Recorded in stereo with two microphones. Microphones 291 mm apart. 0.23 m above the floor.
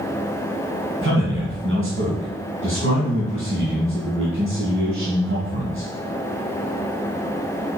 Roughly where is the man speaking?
Right.